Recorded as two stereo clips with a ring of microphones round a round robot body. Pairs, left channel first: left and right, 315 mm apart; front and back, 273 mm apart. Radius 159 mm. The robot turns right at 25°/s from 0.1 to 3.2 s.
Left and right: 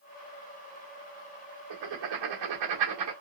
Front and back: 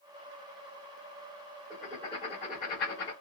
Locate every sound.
1.7 s writing: 90° right, 1.2 m; by 3.1 s 55° right, 1.2 m